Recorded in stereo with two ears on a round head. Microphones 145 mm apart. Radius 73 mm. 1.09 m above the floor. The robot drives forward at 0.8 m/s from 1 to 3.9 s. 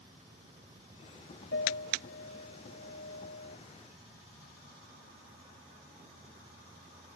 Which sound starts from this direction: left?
A piano, at 1.5 s.